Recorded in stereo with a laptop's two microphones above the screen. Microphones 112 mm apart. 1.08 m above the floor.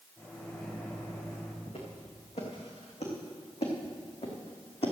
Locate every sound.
0.2 s a microwave: 25° left (ahead or behind), 2.5 m
1.7 s footsteps: 70° left (ahead or behind), 4 m; by 4.9 s 65° left (ahead or behind), 2.5 m